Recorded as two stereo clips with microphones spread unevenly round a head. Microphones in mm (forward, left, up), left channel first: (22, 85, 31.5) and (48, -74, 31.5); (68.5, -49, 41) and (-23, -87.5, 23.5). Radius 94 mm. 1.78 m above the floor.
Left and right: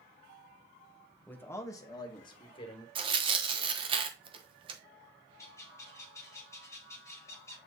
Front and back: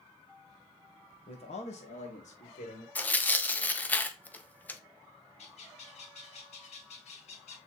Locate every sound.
1.3 s a man speaking: 20° left, 1.4 m; by 2.9 s 40° left, 3 m
3.0 s tearing paper: 35° right, 0.9 m
5.4 s a bird: 25° left, 1.9 m